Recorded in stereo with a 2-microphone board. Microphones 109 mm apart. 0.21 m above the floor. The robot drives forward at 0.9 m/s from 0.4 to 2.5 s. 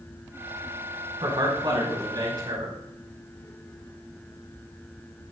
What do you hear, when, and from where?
1.2 s a man speaking: 50° right (ahead or behind), 2.5 m; by 2.8 s 40° right (ahead or behind), 2.5 m